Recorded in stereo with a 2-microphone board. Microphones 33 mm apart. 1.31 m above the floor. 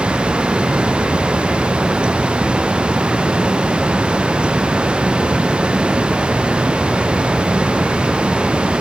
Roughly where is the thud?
I don't hear a thud.